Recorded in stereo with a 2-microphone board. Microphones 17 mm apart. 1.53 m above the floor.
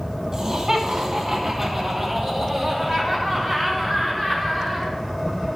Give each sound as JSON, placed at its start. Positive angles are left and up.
{"t": 0.3, "sound": "laughter", "side_deg": -40, "distance_m": 2.0}